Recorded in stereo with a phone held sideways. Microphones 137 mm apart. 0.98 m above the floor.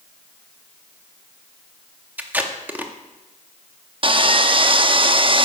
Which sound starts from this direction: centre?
Tape being pulled, at 2.2 s.